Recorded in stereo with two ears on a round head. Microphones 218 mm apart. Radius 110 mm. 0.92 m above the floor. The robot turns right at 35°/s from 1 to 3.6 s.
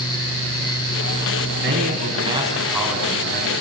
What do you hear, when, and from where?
1.6 s a man speaking: 45° right, 6.5 m; by 3.5 s 20° left, 6.5 m